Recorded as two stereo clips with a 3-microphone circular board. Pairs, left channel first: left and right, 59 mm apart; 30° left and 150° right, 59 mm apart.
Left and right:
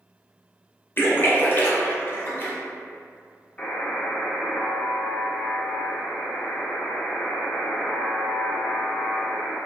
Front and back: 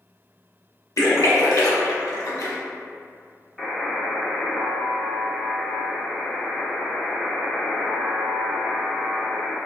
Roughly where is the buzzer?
Behind left.